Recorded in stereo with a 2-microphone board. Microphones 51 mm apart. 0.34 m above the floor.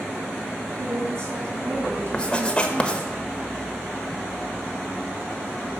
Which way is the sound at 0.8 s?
65° right (ahead or behind).